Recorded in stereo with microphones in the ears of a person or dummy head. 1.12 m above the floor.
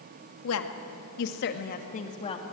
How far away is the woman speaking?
About 1.6 m.